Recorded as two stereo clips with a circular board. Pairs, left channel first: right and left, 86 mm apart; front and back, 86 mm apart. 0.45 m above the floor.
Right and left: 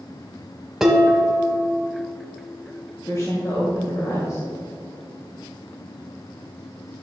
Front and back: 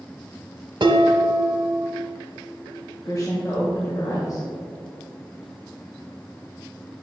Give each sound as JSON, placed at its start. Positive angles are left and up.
{"t": 0.8, "sound": "dishes clattering", "azimuth_deg": 175, "distance_m": 1.0}
{"t": 3.0, "sound": "a woman speaking", "azimuth_deg": -45, "distance_m": 1.6}